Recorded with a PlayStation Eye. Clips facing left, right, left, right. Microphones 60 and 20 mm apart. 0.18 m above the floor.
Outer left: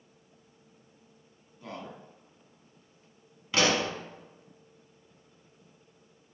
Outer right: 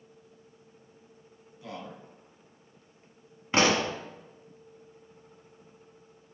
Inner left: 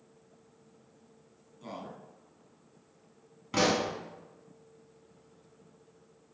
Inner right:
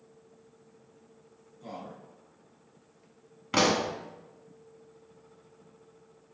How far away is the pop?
About 0.5 m.